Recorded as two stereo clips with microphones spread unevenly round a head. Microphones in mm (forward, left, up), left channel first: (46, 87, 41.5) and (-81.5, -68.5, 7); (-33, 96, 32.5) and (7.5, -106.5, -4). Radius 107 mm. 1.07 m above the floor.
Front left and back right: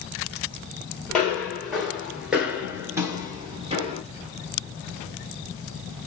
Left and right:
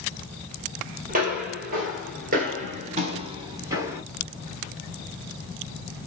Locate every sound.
1.1 s footsteps: 25° right, 2.0 m; by 4.0 s 170° right, 1.1 m